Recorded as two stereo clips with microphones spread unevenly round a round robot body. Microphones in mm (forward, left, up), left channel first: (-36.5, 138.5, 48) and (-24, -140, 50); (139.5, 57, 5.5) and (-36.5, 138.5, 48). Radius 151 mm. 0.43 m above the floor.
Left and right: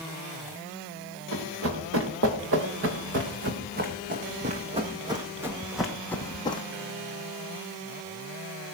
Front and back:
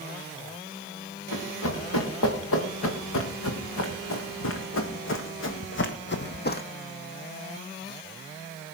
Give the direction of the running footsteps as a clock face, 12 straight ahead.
1 o'clock.